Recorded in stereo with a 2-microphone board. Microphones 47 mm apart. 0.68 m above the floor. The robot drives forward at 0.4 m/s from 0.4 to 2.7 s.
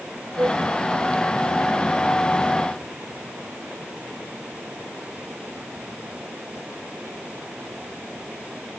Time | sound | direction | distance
0.4 | a flute | 50° right (ahead or behind) | ?